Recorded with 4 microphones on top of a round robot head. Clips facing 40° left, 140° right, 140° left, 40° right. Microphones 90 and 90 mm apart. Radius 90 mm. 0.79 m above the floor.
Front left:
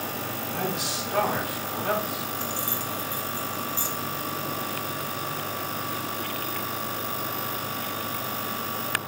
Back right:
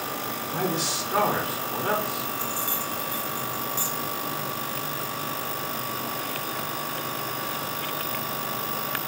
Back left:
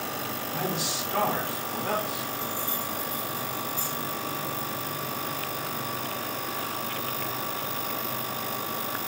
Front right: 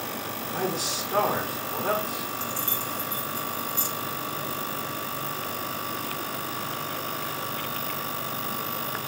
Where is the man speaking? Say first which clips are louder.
Back right 3 dB, front right 3 dB; 85° right, 2 m.